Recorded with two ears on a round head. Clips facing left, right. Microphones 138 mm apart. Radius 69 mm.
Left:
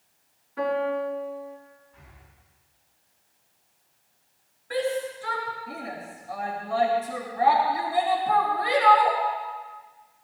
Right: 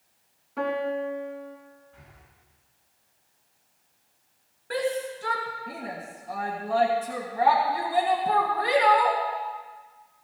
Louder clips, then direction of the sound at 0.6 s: Left 2 dB; 75° right (ahead or behind).